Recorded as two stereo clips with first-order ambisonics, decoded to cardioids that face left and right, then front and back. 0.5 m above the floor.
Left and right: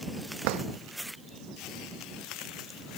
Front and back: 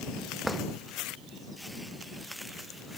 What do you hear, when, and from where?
0.4 s a drawer: 90° right